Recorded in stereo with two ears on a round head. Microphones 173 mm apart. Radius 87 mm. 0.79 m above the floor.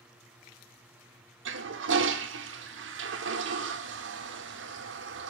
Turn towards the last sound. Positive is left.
turn(degrees=-65)  # may be behind; listen again after turning